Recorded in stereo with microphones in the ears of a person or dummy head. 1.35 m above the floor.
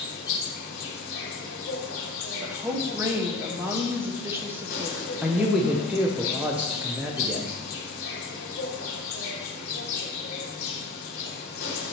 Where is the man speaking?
5° right (ahead or behind), 0.7 m.